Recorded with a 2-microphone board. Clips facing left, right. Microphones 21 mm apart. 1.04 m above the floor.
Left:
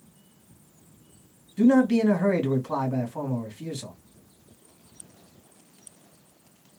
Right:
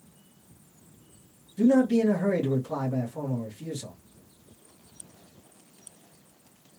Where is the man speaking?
65° left (ahead or behind), 1.3 m.